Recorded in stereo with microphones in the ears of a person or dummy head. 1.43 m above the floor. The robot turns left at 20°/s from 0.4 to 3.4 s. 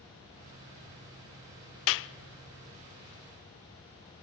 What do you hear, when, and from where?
1.9 s a clap: 70° left (ahead or behind), 0.6 m; by 2.1 s 65° left (ahead or behind), 0.6 m